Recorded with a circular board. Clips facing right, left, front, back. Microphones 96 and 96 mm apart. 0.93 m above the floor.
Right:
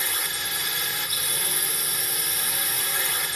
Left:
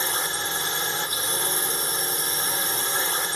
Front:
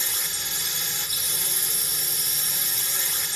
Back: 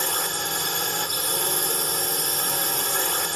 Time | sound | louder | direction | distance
0.0 | a drone | left 4 dB, back 9 dB | 150° left | ?